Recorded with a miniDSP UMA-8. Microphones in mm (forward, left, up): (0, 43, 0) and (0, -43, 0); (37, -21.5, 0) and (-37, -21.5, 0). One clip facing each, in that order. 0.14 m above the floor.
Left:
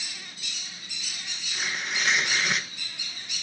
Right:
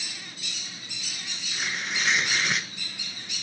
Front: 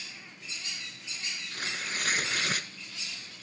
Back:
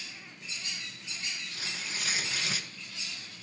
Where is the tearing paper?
Straight ahead, 0.8 m.